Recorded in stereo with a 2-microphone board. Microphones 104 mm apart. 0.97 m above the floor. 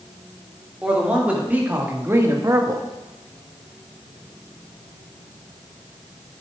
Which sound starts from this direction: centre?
A man speaking, at 0.8 s.